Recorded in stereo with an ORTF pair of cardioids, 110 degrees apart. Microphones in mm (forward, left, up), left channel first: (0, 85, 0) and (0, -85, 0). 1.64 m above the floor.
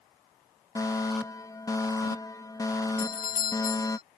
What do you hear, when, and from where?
0.8 s a fire alarm: 20° left
3.0 s a doorbell: 60° left